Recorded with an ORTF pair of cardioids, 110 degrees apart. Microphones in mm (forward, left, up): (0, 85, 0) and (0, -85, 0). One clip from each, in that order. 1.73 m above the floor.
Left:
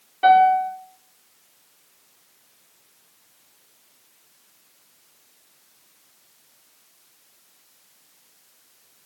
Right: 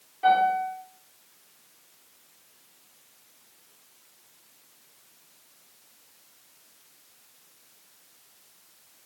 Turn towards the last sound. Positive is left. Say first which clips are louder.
# left 7 dB
turn(degrees=60)